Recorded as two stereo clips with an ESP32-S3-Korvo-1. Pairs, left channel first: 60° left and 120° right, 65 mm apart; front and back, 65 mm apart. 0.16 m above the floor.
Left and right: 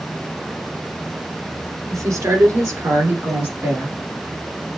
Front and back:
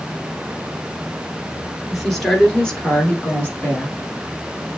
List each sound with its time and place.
1.9 s a woman speaking: 90° right, 2 m; by 3.9 s 65° right, 3 m